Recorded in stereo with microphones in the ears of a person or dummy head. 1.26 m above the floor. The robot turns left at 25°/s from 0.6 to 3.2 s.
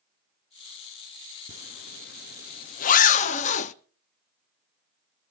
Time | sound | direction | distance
1.5 | a zipper | 40° left (ahead or behind) | 0.7 m